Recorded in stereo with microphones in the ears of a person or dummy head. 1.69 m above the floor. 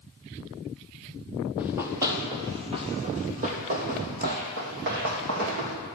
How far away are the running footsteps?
About 3 m.